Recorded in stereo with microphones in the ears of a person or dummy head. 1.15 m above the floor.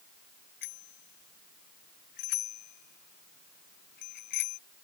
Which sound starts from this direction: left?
A bicycle bell, at 0.6 s.